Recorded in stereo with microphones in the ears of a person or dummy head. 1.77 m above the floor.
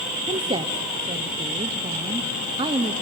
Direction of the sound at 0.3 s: 25° right (ahead or behind).